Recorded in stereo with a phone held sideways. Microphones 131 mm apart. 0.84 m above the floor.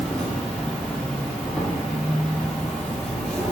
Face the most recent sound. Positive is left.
turn(degrees=5)  # may be behind; listen again after turning